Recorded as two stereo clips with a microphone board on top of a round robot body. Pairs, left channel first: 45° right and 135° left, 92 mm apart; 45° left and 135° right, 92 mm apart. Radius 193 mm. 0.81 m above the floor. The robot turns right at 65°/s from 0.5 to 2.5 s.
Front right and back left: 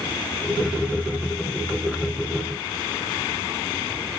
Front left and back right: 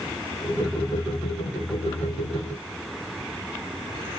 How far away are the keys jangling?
No keys jangling in this recording.